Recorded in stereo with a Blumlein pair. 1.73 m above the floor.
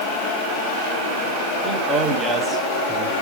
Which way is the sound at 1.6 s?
20° right.